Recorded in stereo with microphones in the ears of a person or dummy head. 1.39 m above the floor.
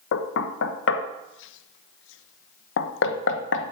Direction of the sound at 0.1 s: 75° left (ahead or behind).